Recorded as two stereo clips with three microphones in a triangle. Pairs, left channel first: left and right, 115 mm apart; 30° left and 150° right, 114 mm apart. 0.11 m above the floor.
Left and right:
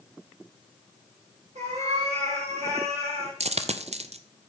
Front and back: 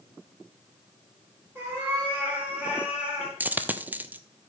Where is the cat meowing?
80° right, 4 m; by 3.3 s 65° right, 3 m.